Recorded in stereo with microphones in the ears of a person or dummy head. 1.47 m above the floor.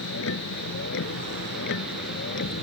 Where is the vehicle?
70° left (ahead or behind); by 2.6 s 60° left (ahead or behind).